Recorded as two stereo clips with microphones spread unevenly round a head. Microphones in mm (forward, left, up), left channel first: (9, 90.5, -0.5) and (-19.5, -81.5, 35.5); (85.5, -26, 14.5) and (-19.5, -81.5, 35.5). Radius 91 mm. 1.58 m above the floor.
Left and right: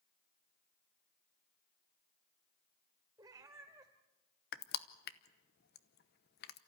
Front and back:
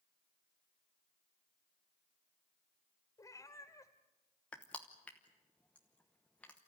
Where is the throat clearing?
No throat clearing in this recording.